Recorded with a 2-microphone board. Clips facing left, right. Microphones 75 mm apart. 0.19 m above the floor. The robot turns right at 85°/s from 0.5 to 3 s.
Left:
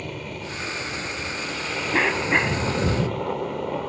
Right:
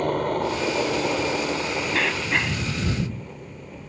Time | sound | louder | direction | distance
0.0 | a helicopter | right 11 dB | 125° right | ?
1.9 | a cough | left 5 dB | 25° left (ahead or behind) | ?